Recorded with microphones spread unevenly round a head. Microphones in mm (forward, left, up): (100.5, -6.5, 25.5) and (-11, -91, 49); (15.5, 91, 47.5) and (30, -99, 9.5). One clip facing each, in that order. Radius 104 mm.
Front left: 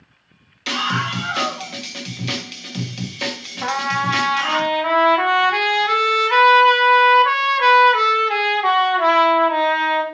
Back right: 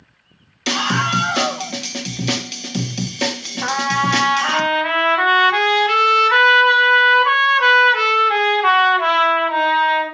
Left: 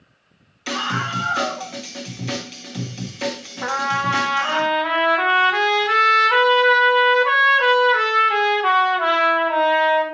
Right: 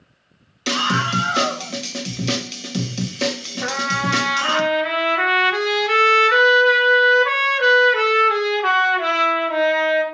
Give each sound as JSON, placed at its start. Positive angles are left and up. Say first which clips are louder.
{"t": 0.7, "sound": "a scream", "louder": "back right 4 dB, right 4 dB", "azimuth_deg": -95, "distance_m": 1.6}
{"t": 3.6, "sound": "a trumpet", "louder": "back right 2 dB, even", "azimuth_deg": -20, "distance_m": 3.5}